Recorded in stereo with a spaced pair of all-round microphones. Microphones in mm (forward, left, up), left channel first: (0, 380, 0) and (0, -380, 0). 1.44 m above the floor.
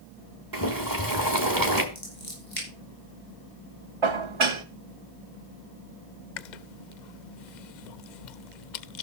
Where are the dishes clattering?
40° right (ahead or behind), 0.9 m.